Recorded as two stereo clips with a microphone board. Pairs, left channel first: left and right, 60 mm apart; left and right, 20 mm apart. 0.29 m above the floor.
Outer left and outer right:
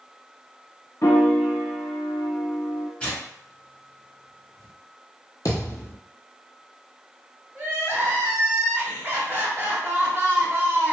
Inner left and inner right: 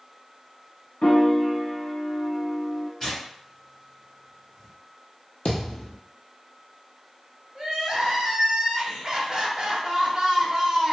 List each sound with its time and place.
1.0 s a piano: 55° left (ahead or behind), 0.7 m
3.0 s tearing paper: 20° left (ahead or behind), 1.6 m
5.5 s a thud: 70° left (ahead or behind), 1.1 m
7.5 s crying: 30° right (ahead or behind), 1.0 m